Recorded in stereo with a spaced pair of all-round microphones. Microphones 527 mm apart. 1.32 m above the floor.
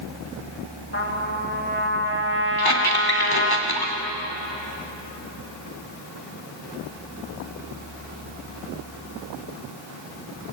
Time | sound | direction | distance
0.9 | a trumpet | 20° left (ahead or behind) | 2.5 m
2.6 | a squeak | 45° left (ahead or behind) | 2.5 m